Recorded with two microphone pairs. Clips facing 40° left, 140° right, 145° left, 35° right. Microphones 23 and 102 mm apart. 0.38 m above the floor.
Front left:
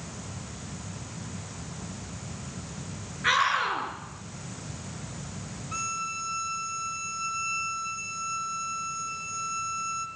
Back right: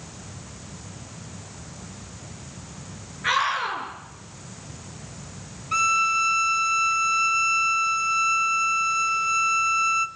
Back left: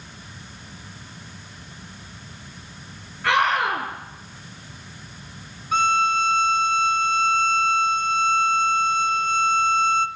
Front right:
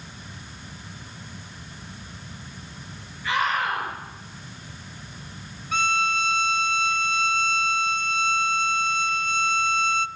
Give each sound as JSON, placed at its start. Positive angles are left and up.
{"t": 3.2, "sound": "a scream", "azimuth_deg": 130, "distance_m": 6.0}
{"t": 5.7, "sound": "a violin", "azimuth_deg": -175, "distance_m": 0.9}